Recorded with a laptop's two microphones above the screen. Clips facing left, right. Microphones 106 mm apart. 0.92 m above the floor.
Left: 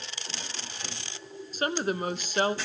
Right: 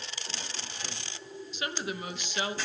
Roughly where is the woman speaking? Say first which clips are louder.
Left 8 dB; left.